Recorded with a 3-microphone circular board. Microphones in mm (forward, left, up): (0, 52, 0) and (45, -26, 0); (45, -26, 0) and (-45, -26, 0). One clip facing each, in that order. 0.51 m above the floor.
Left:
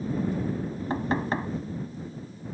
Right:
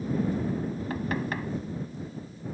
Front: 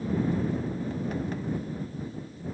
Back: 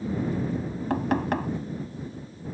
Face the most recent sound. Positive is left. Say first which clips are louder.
# left 6 dB, back 6 dB
turn(degrees=180)